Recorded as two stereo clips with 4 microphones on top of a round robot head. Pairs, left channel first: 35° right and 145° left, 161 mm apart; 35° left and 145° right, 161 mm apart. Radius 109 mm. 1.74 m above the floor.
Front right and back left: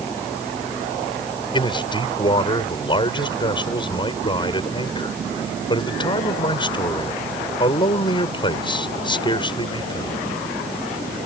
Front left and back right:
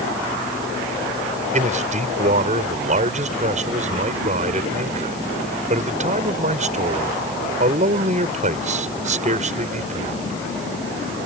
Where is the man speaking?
95° right.